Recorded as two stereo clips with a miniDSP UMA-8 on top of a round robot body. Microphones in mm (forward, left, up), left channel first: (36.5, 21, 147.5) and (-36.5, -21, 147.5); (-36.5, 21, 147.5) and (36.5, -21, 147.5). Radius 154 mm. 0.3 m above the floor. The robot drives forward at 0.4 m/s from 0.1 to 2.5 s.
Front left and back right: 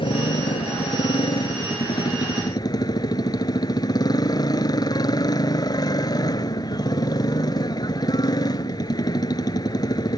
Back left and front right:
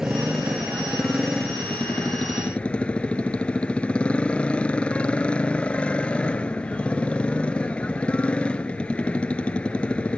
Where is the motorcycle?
55° left; by 10.2 s 75° left.